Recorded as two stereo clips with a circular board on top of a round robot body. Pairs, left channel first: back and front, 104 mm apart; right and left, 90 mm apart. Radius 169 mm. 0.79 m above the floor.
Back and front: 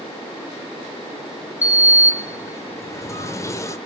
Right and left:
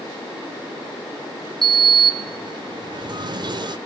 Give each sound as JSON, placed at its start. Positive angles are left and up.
{"t": 1.6, "sound": "a sliding door", "azimuth_deg": 120, "distance_m": 0.7}